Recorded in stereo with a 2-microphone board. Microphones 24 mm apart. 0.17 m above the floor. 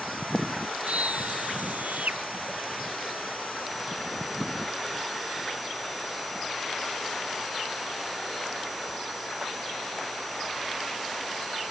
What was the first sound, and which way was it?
A scream, 75° right (ahead or behind).